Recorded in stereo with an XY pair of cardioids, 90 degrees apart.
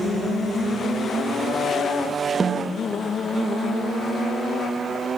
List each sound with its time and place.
2.4 s a snare drum: 35° right, 0.7 m